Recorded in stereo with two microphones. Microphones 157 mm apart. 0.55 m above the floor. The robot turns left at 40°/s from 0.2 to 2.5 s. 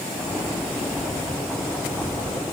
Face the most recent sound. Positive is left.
No sound to turn to.